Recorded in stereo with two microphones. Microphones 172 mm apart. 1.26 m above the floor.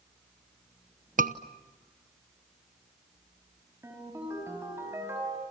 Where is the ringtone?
15° right (ahead or behind), 5.5 m.